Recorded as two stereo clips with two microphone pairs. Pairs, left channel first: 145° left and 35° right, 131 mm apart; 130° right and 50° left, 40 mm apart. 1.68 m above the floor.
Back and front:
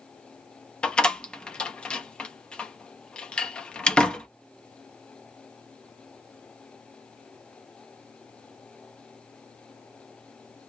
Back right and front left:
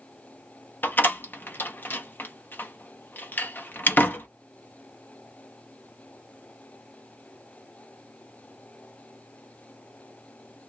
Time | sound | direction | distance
0.8 | a door slam | 130° right | 0.7 m